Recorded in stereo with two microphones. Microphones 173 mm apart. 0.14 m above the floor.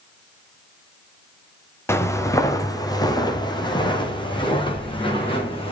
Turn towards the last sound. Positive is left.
turn(degrees=30)  # may be behind; listen again after turning